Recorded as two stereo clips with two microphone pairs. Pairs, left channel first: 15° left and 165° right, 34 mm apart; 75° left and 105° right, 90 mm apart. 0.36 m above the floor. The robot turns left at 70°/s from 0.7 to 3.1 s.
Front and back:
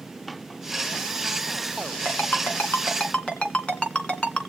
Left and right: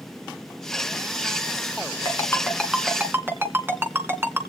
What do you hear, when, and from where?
2.0 s a ringtone: 30° left, 2.5 m; by 4.4 s 40° right, 2.5 m